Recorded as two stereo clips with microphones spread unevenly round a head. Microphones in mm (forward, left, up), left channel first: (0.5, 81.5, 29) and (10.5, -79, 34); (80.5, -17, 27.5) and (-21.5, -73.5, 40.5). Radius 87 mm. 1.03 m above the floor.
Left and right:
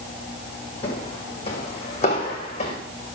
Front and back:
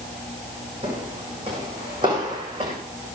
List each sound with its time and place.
0.8 s footsteps: 150° left, 2.5 m